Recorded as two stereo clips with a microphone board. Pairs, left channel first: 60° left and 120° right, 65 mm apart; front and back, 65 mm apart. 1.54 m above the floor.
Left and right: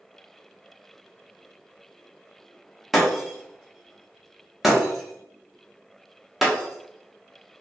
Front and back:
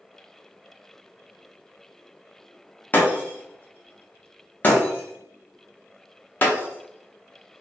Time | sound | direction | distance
2.9 | breaking glass | 35° right | 0.7 m